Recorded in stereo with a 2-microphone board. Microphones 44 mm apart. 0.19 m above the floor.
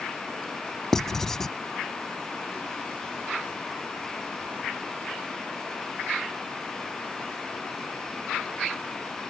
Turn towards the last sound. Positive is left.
turn(degrees=10)  # may be behind; listen again after turning